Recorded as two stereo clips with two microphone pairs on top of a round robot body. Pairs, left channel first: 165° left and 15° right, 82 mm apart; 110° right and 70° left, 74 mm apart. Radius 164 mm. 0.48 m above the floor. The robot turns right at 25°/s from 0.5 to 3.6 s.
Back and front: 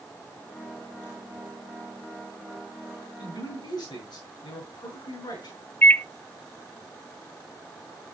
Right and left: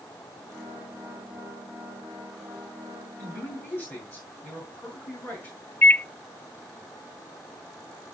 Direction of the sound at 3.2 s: 175° right.